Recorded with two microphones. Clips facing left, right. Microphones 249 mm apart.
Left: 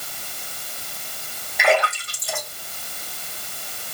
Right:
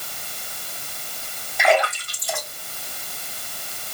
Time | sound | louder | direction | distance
1.6 | a splash | right 1 dB | 65° left (ahead or behind) | 3.5 m